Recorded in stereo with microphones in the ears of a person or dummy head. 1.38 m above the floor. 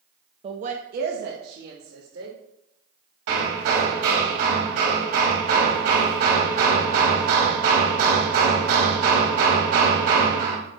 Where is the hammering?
55° right (ahead or behind), 2 m.